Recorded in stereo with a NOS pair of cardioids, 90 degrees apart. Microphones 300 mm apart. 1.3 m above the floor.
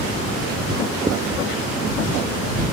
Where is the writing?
10° right.